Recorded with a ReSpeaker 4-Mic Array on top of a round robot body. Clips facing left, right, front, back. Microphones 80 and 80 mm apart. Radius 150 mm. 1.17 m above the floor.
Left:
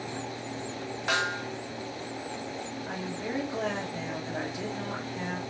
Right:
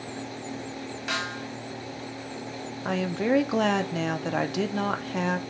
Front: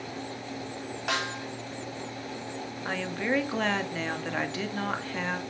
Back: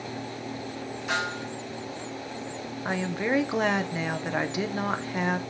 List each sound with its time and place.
1.1 s a snare drum: 30° left, 2 m
2.9 s a woman speaking: 105° right, 0.8 m